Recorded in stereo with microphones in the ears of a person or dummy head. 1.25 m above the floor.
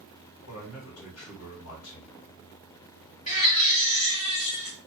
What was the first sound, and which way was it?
A man speaking, 75° left (ahead or behind).